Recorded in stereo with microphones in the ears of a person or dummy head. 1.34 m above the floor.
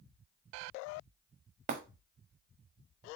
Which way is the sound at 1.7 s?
45° right (ahead or behind).